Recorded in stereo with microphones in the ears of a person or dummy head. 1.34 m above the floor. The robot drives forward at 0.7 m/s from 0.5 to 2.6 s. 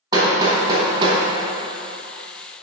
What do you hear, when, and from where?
0.1 s hammering: 20° right (ahead or behind), 1.5 m; by 2.6 s 75° right (ahead or behind), 0.6 m